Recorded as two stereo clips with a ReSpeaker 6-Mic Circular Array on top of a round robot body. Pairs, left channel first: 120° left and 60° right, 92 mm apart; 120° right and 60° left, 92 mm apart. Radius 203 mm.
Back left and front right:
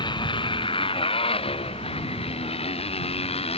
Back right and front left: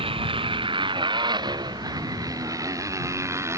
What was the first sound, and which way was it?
A motorcycle, 85° left.